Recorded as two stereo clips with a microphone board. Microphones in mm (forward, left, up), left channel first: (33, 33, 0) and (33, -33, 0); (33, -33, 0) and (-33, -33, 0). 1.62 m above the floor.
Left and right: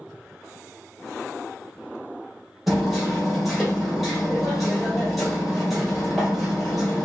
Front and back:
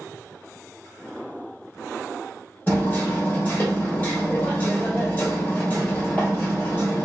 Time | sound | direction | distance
2.7 | hammering | straight ahead | 1.4 m